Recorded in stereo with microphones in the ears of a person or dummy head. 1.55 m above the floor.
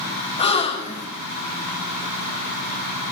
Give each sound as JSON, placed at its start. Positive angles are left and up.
{"t": 0.4, "sound": "a gasp", "side_deg": 30, "distance_m": 0.5}